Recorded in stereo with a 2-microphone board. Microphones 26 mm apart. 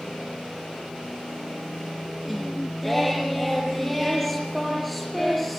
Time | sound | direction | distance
2.2 | singing | 5° left (ahead or behind) | 3.5 m